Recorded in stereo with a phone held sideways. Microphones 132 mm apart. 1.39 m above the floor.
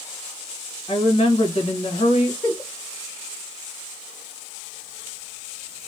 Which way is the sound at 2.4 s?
15° left (ahead or behind).